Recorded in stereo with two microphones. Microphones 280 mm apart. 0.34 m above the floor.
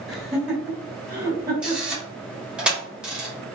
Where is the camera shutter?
5° right (ahead or behind), 1.3 m.